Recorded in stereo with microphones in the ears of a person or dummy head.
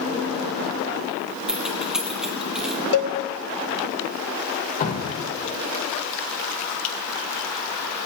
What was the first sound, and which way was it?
Keys jangling, 5° right (ahead or behind).